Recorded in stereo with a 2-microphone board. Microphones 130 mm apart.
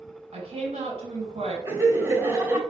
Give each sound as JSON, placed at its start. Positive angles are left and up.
{"t": 0.3, "sound": "a woman speaking", "side_deg": -55, "distance_m": 2.5}
{"t": 1.6, "sound": "laughter", "side_deg": -20, "distance_m": 1.1}